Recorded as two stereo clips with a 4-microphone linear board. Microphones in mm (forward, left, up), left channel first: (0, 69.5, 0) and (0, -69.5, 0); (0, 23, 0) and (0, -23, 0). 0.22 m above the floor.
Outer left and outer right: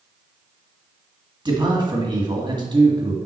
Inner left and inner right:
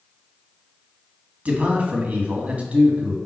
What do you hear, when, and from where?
1.4 s a man speaking: 35° right (ahead or behind), 1.8 m